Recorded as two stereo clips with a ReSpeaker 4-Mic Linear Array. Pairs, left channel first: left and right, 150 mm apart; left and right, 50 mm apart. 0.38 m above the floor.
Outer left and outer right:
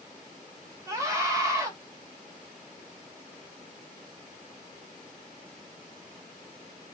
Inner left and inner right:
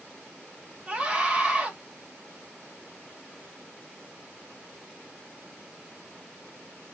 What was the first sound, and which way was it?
A scream, 20° right (ahead or behind).